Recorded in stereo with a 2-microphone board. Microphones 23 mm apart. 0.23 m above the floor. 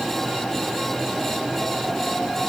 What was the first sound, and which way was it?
Only background noise.